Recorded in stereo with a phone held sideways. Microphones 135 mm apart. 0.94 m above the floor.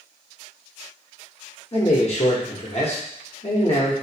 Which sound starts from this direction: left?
A man speaking, at 1.7 s.